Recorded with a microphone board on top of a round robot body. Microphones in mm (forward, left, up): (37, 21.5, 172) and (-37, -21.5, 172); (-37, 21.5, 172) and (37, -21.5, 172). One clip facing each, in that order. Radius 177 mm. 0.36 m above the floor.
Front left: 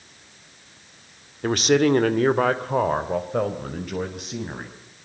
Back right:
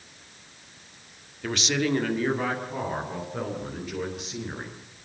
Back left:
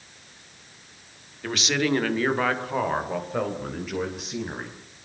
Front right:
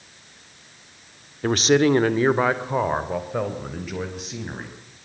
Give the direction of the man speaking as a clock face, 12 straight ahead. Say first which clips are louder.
Front left 8 dB, front right 8 dB; 12 o'clock.